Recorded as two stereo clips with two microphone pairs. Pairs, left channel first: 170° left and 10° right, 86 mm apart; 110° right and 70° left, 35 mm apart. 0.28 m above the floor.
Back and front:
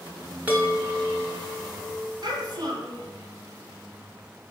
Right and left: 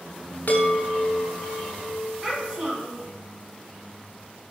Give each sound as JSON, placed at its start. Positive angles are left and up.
{"t": 0.5, "sound": "a chime", "azimuth_deg": -80, "distance_m": 0.9}
{"t": 2.2, "sound": "a child speaking", "azimuth_deg": 10, "distance_m": 1.2}